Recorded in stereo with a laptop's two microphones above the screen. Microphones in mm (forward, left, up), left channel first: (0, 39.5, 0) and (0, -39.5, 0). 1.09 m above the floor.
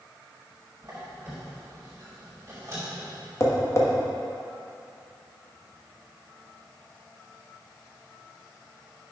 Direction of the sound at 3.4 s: 35° left (ahead or behind).